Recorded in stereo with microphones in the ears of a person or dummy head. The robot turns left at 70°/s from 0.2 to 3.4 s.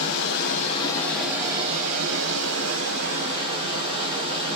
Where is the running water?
70° left, 0.8 m; by 4.6 s 155° right, 0.8 m.